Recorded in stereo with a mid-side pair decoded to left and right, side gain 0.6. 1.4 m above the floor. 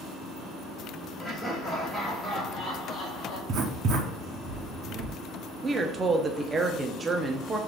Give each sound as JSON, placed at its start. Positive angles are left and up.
{"t": 1.2, "sound": "laughter", "azimuth_deg": -5, "distance_m": 1.2}
{"t": 3.5, "sound": "writing", "azimuth_deg": -55, "distance_m": 0.7}
{"t": 5.6, "sound": "a woman speaking", "azimuth_deg": -25, "distance_m": 0.6}